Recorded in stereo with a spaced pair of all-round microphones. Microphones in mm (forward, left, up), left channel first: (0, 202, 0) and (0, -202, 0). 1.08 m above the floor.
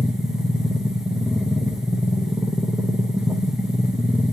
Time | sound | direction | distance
0.0 | a machine running | centre (ahead or behind) | 0.9 m